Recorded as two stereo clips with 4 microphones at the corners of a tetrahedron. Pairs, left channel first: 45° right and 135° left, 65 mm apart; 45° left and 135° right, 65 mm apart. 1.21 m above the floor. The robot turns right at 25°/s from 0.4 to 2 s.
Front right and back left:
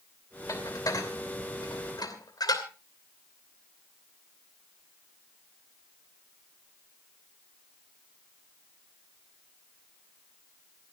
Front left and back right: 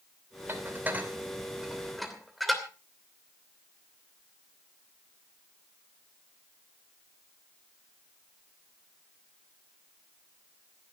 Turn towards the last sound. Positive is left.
turn(degrees=-40)